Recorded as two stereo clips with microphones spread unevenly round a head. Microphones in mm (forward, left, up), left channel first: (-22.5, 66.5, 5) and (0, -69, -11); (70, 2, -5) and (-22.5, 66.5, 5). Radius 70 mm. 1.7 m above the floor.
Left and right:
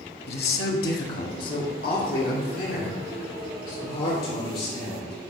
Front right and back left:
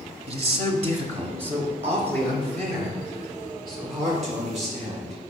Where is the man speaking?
110° left, 0.6 m; by 5.1 s 115° left, 4 m.